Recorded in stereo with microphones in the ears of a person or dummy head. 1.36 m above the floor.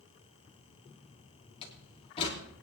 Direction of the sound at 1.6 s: 35° left (ahead or behind).